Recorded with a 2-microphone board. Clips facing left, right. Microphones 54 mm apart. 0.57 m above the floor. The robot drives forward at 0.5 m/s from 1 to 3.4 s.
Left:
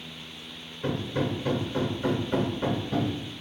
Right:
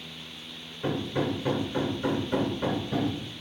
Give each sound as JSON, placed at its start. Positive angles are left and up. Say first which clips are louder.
{"t": 0.8, "sound": "hammering", "louder": "even", "side_deg": -15, "distance_m": 1.2}